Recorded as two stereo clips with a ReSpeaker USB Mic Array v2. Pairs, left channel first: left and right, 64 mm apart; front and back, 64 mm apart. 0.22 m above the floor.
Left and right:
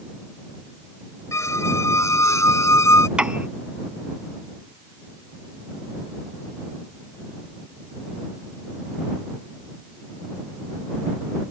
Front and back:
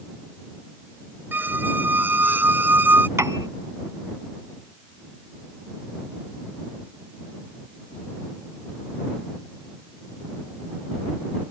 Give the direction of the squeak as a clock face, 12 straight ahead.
8 o'clock.